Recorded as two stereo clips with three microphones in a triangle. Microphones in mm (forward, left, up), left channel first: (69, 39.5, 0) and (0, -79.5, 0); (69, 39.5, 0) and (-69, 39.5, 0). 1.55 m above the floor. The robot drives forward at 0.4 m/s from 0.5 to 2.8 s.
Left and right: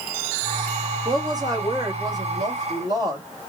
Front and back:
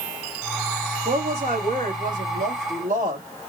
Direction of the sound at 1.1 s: Straight behind.